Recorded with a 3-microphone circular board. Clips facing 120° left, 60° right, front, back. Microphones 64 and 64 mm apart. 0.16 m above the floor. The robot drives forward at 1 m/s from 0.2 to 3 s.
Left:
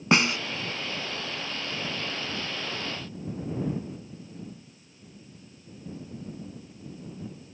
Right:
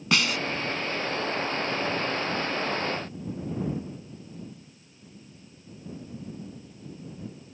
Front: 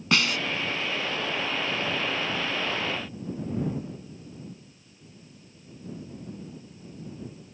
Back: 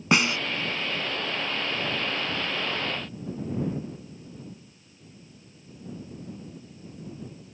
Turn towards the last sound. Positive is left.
turn(degrees=175)